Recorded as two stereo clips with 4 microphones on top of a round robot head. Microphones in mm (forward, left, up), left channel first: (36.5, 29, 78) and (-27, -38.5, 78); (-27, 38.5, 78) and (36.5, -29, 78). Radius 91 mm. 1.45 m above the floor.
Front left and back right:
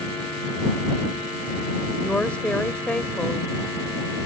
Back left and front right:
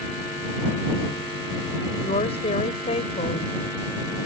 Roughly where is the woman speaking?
Behind left.